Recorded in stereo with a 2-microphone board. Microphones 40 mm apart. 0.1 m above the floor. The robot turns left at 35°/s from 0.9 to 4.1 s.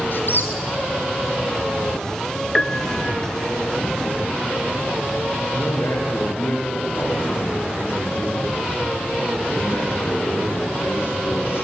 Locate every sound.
0.1 s a squeak: 55° left (ahead or behind), 2 m
2.5 s a piano: 20° left (ahead or behind), 0.9 m; by 3.2 s 25° left (ahead or behind), 0.9 m
5.5 s a man speaking: 70° left (ahead or behind), 6 m